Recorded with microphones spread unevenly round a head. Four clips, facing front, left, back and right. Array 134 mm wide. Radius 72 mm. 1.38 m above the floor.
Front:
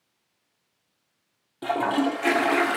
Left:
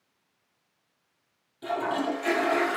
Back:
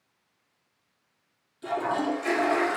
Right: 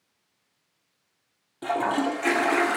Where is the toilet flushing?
30° right, 0.5 m.